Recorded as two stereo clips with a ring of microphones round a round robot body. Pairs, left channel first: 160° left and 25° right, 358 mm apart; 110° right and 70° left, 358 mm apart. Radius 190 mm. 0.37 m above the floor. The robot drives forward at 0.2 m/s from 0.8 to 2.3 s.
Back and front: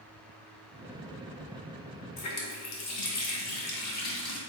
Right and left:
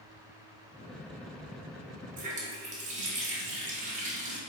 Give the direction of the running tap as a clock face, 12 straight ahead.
8 o'clock.